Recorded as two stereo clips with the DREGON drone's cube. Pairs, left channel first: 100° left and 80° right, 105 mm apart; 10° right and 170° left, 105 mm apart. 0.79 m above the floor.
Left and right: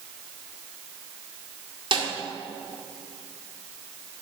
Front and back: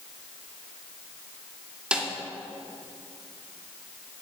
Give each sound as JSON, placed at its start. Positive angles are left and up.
{"t": 1.9, "sound": "a snare drum", "azimuth_deg": -110, "distance_m": 1.9}